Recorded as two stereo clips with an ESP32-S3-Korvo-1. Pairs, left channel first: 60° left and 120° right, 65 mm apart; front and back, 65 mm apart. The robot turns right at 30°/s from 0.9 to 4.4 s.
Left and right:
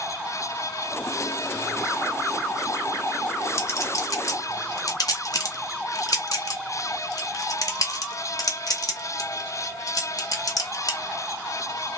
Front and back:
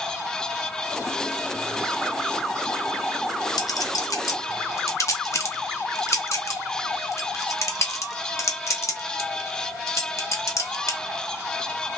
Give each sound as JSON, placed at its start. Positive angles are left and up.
{"t": 3.6, "sound": "a clink", "azimuth_deg": 10, "distance_m": 0.7}